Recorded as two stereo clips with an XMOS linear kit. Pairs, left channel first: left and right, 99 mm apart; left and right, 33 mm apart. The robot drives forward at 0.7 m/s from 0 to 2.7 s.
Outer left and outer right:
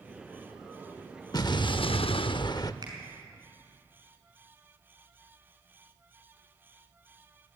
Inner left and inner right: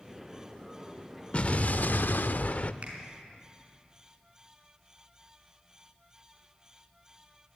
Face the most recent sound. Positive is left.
turn(degrees=-45)  # may be behind; listen again after turning